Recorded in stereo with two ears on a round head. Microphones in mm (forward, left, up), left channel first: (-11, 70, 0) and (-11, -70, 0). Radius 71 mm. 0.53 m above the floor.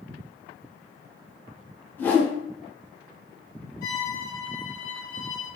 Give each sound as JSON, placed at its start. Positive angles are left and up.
{"t": 2.0, "sound": "a whoosh", "side_deg": 10, "distance_m": 0.5}
{"t": 3.8, "sound": "a violin", "side_deg": 60, "distance_m": 1.1}